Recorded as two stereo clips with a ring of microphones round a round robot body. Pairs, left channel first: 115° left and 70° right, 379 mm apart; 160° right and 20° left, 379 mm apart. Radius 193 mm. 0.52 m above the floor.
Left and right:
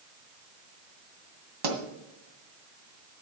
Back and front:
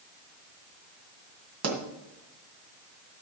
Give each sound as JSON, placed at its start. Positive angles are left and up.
{"t": 1.6, "sound": "a pop", "azimuth_deg": -30, "distance_m": 2.0}